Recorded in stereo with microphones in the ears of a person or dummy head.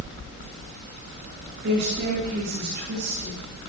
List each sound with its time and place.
1.6 s a woman speaking: 65° right (ahead or behind), 9 m